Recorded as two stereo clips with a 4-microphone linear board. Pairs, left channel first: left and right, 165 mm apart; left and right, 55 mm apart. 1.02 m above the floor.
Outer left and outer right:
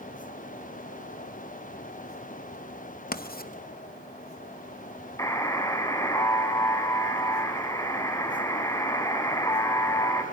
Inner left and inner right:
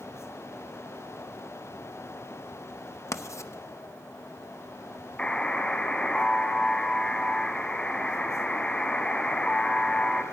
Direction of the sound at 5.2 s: 20° left (ahead or behind).